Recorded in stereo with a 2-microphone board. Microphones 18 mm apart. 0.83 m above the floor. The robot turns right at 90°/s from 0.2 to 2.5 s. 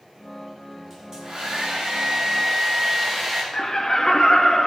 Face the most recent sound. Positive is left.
turn(degrees=35)  # may be behind; listen again after turning